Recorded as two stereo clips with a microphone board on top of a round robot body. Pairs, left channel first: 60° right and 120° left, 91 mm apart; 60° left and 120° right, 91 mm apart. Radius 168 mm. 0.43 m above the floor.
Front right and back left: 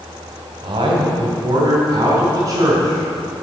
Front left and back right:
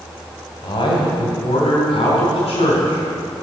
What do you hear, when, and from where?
0.6 s a man speaking: 95° left, 3 m; by 3.3 s 60° left, 6 m